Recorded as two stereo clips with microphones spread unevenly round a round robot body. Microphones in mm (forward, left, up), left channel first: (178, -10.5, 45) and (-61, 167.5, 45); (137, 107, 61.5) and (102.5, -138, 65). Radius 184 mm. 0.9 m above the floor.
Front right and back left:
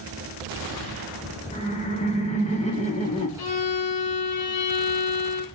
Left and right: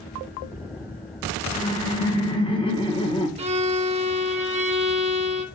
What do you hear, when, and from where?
1.5 s laughter: 20° left, 1.1 m
3.4 s a violin: 30° right, 0.8 m